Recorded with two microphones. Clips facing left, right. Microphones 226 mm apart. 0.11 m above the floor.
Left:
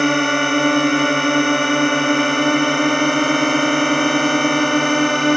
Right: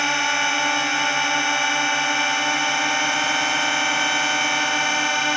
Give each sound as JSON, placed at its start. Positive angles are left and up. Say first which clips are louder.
{"t": 0.0, "sound": "a drone", "louder": "left 12 dB", "side_deg": 55}